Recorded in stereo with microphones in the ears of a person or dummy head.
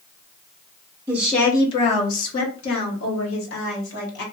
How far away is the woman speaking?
About 0.5 m.